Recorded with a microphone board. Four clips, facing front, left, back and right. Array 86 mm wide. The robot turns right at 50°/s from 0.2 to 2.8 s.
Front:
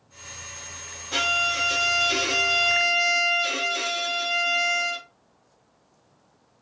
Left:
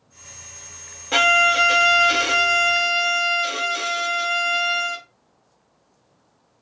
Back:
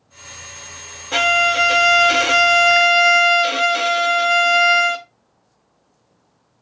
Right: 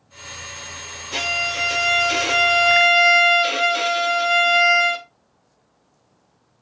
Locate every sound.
1.1 s a violin: 120° left, 0.7 m; by 5.0 s 155° right, 0.7 m